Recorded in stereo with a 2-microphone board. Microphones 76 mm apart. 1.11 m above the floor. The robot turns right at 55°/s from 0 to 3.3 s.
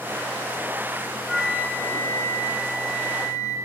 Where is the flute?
5° right, 1.2 m; by 3.6 s 110° left, 1.2 m.